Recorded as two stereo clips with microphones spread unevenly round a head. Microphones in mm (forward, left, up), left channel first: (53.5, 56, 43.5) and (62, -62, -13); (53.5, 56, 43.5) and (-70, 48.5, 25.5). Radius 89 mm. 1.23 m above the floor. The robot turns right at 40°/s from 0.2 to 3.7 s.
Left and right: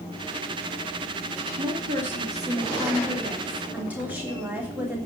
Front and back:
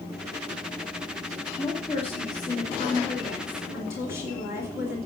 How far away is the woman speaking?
About 3 m.